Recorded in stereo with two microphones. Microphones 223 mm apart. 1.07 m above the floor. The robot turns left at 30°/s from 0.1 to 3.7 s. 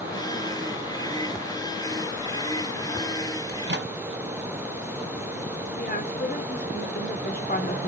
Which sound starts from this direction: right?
A microwave, at 3.5 s.